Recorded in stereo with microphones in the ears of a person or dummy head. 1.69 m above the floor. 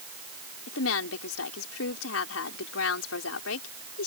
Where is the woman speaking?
85° left.